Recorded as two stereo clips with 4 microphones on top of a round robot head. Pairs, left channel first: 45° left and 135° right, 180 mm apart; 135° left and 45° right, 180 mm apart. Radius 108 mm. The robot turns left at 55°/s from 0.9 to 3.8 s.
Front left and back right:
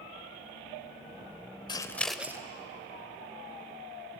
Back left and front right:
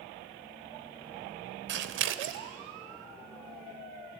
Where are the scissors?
20° right, 0.7 m; by 2.4 s 60° right, 0.7 m.